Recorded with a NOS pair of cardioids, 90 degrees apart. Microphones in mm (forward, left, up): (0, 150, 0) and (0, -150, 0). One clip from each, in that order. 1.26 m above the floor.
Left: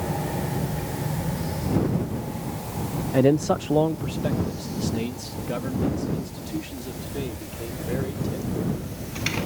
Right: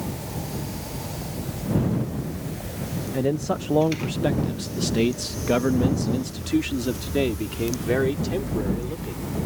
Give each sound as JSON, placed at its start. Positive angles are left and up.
{"t": 3.1, "sound": "a man speaking", "azimuth_deg": 35}